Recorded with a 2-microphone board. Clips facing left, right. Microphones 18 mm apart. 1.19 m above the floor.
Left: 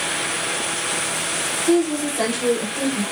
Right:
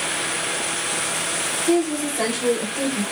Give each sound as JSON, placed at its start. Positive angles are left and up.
{"t": 1.7, "sound": "a woman speaking", "side_deg": 25, "distance_m": 1.4}